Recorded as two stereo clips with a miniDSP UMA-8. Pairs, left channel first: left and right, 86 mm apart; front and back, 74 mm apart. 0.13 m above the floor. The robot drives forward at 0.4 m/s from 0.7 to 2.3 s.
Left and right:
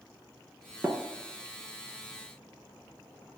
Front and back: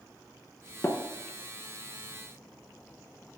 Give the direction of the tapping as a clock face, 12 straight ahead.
1 o'clock.